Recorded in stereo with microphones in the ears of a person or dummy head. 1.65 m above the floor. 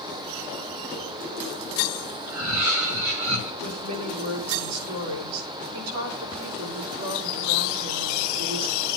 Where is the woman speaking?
75° right (ahead or behind), 7 m.